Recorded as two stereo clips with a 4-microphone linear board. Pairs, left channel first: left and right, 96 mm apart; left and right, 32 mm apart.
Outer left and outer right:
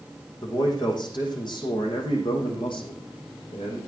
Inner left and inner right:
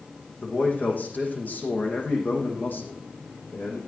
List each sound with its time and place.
0.4 s a man speaking: 50° left (ahead or behind), 6 m; by 3.8 s 65° left (ahead or behind), 5 m